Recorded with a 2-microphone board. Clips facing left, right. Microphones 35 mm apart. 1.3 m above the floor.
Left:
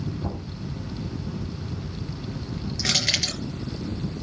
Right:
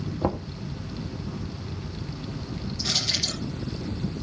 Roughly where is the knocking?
Right.